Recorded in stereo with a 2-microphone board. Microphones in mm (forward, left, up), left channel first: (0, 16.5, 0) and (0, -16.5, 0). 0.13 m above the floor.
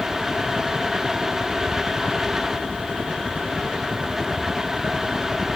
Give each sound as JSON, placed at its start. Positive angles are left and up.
{"t": 0.0, "sound": "a helicopter", "side_deg": 45}